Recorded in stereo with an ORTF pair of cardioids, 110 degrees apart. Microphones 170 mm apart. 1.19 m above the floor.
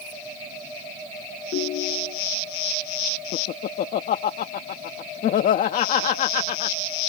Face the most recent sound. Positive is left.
turn(degrees=55)